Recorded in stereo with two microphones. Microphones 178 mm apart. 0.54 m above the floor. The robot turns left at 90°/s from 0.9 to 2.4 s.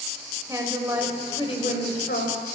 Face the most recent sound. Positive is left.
turn(degrees=65)